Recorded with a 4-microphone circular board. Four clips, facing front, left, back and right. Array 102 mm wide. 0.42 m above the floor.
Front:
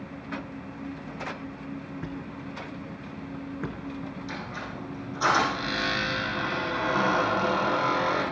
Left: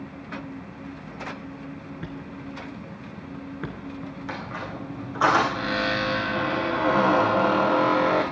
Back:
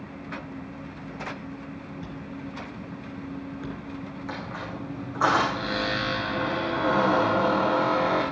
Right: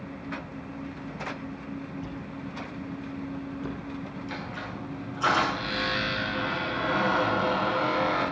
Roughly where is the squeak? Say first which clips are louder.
Left 3 dB, back 2 dB; behind left.